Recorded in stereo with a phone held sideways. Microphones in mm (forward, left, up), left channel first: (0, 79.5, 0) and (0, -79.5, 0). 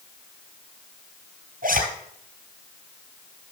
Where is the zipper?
60° right (ahead or behind), 3 m.